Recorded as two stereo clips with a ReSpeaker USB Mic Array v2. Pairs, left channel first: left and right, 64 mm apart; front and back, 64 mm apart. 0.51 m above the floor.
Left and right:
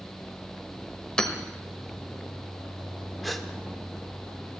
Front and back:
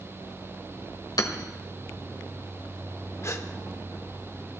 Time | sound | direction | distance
1.2 | hammering | 15° left | 1.4 m
3.2 | a gasp | straight ahead | 1.0 m